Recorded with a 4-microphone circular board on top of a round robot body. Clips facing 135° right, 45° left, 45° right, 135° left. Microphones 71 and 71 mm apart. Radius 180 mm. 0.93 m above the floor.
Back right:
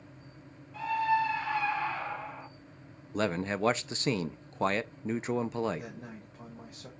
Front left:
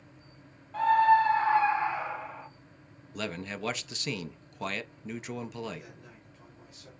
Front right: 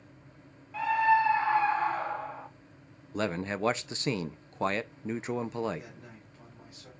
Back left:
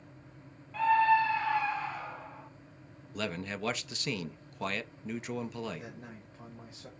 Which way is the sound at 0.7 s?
40° left.